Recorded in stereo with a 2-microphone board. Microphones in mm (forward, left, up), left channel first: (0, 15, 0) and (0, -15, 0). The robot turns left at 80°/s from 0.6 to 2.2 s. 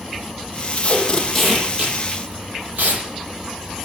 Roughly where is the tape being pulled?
Left.